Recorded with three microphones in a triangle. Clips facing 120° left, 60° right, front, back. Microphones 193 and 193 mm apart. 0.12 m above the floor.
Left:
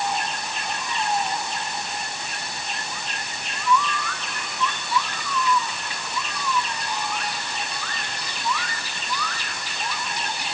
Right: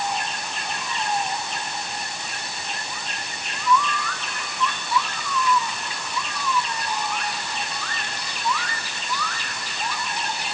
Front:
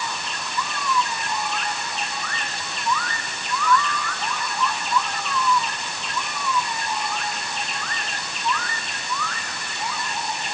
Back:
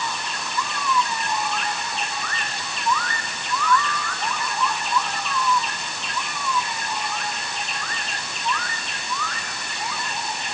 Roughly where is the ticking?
I don't hear ticking.